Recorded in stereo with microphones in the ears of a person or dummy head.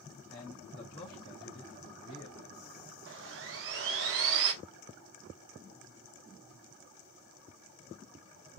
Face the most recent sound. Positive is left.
turn(degrees=-70)  # may be behind; listen again after turning